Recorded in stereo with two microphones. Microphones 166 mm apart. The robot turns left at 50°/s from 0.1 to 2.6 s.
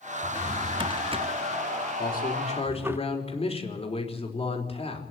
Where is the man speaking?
65° left, 4 m; by 5.0 s 35° left, 4 m.